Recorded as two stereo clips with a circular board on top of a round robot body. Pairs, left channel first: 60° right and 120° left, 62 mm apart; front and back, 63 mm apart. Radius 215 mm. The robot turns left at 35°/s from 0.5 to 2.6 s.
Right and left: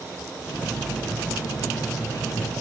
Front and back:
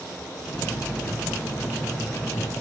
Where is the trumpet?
No trumpet in this recording.